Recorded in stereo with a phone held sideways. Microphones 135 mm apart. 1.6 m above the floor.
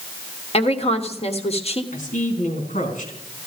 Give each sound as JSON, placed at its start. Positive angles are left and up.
{"t": 0.5, "sound": "a woman speaking", "side_deg": 50, "distance_m": 1.3}
{"t": 1.9, "sound": "a man speaking", "side_deg": 70, "distance_m": 4.0}